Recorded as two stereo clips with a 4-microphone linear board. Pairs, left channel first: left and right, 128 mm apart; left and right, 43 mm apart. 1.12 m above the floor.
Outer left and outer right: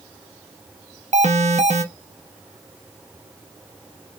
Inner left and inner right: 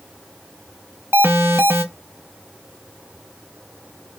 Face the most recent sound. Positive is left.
turn(degrees=-65)  # may be behind; listen again after turning